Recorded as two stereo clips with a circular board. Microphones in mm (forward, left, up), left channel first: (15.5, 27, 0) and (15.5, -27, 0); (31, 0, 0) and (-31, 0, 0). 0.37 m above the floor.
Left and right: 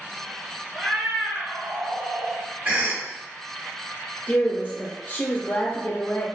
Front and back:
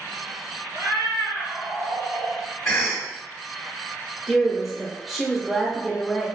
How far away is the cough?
About 1.4 m.